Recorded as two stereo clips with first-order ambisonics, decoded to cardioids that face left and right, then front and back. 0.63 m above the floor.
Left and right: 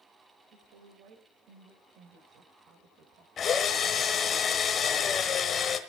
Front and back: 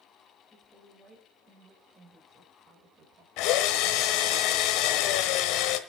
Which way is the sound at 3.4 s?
25° left.